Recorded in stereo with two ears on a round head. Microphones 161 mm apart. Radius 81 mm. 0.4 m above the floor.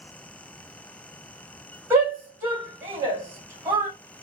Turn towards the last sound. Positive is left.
turn(degrees=-15)  # may be behind; listen again after turning